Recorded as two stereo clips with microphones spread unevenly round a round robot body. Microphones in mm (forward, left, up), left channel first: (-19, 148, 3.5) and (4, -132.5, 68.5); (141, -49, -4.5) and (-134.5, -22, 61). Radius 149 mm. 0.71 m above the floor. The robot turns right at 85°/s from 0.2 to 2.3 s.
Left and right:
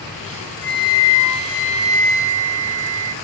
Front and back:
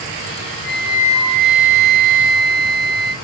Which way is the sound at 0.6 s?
90° left.